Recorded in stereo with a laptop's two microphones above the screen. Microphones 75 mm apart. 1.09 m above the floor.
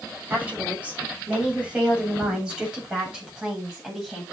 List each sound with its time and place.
0.3 s a woman speaking: 20° right (ahead or behind), 7.5 m; by 4.2 s 5° right (ahead or behind), 9 m